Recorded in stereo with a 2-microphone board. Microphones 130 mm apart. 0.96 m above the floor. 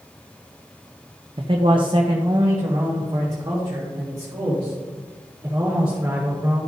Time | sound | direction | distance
1.4 | a man speaking | 40° right (ahead or behind) | 0.6 m